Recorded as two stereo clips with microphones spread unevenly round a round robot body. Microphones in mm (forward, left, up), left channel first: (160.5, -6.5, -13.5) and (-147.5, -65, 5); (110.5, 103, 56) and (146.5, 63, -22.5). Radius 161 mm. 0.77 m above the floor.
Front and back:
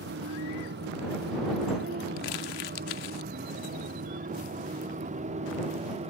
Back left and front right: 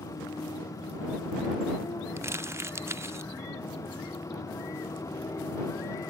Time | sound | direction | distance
0.0 | a motorcycle | 130° left | ?
2.2 | crumpling | straight ahead | ?